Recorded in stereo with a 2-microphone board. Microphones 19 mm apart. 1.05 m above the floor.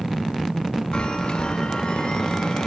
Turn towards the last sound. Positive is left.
turn(degrees=60)  # may be behind; listen again after turning